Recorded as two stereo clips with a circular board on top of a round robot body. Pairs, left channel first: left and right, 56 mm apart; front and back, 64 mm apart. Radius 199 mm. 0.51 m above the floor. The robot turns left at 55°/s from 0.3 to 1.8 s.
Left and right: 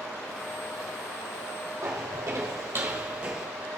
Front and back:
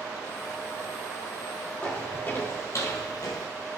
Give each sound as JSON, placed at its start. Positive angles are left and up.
{"t": 1.8, "sound": "footsteps", "azimuth_deg": -70, "distance_m": 1.9}